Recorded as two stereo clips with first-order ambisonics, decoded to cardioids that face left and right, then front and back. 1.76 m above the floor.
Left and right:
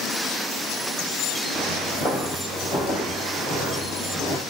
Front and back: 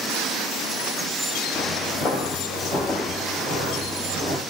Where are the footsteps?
70° left, 1.9 m; by 4.4 s 150° left, 2 m.